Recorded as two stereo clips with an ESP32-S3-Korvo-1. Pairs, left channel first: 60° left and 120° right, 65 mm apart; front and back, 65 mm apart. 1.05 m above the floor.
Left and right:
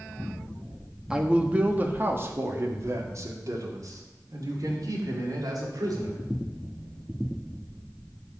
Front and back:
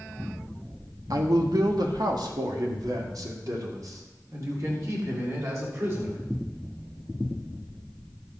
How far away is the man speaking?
About 1.5 m.